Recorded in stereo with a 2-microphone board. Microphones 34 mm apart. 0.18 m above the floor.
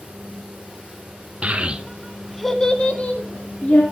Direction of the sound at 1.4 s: 45° right (ahead or behind).